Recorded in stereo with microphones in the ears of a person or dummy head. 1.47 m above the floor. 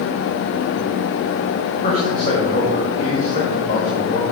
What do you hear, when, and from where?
1.8 s a man speaking: 35° left (ahead or behind), 1.3 m